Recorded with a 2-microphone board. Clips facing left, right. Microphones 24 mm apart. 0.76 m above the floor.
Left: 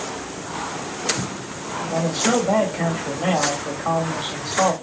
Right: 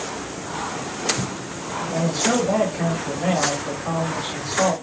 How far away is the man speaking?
About 2 m.